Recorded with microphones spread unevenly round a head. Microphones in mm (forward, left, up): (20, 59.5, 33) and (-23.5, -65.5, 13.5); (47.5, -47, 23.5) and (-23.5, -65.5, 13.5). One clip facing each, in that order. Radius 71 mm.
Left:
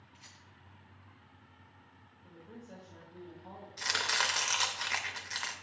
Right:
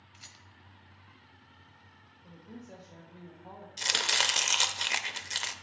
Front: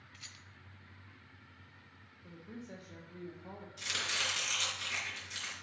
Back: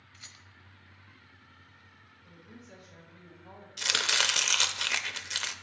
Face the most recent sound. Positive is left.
turn(degrees=-170)